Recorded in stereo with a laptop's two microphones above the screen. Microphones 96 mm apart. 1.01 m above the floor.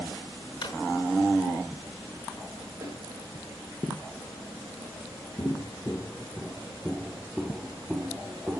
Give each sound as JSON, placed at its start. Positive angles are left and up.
{"t": 0.6, "sound": "a drawer", "side_deg": 65, "distance_m": 4.5}
{"t": 2.8, "sound": "a snare drum", "side_deg": -35, "distance_m": 7.5}
{"t": 5.4, "sound": "footsteps", "side_deg": 35, "distance_m": 1.2}